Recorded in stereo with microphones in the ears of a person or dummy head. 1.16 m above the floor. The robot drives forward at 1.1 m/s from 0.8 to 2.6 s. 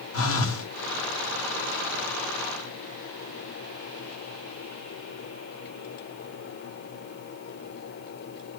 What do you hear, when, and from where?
0.1 s a phone buzzing: 75° left (ahead or behind), 1.9 m